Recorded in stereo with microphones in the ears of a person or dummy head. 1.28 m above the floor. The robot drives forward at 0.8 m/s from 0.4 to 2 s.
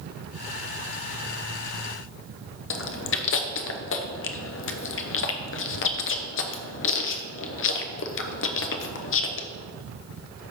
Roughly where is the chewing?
Left.